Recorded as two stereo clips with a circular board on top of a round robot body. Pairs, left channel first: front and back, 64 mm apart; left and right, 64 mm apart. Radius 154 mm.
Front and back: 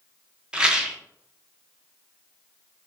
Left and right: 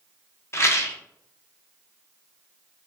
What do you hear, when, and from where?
0.5 s a rattle: 110° left, 0.8 m